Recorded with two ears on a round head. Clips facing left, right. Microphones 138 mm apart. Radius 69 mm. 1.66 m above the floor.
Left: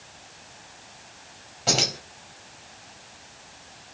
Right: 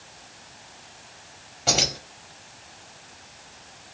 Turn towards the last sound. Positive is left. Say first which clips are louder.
# even
turn(degrees=0)  # may be behind; listen again after turning